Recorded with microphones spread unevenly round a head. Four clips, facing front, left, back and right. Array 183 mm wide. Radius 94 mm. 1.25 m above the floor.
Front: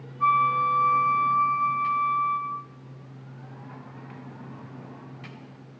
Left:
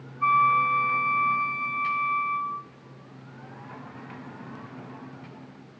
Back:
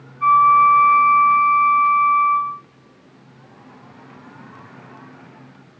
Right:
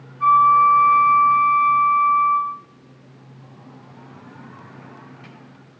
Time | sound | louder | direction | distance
0.2 | a flute | right 8 dB, back 10 dB | 35° right | 0.9 m